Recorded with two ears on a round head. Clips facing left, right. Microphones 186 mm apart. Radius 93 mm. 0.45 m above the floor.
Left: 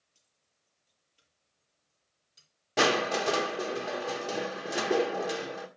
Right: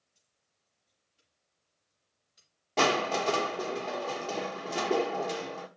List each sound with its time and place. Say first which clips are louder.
0.1 s keys jangling: left 1 dB; 45° left (ahead or behind), 6.5 m
2.8 s crushing: left 1 dB; 15° left (ahead or behind), 1.2 m